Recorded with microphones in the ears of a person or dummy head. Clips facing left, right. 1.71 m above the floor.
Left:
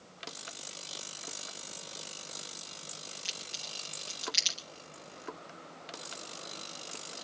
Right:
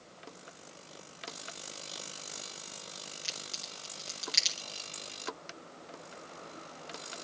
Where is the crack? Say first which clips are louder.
Right 1 dB; 40° right (ahead or behind), 5 m.